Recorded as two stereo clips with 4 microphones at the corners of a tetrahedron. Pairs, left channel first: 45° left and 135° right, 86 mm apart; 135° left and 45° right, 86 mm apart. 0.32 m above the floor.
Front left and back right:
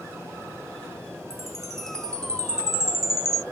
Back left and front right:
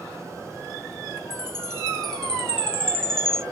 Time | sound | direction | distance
1.3 | a chime | 150° right | 0.7 m